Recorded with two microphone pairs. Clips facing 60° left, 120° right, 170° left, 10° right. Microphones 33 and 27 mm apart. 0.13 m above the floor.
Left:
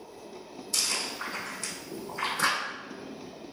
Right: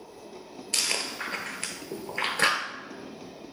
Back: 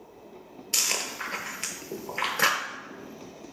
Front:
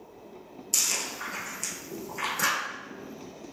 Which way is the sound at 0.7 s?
140° right.